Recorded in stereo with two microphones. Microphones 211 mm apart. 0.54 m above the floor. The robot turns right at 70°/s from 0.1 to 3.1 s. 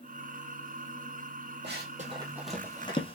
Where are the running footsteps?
60° right (ahead or behind), 1.0 m; by 3.2 s 25° left (ahead or behind), 0.5 m.